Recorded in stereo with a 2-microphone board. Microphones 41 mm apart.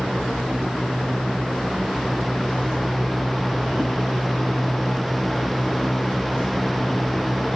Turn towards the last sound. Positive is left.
No sound to turn to.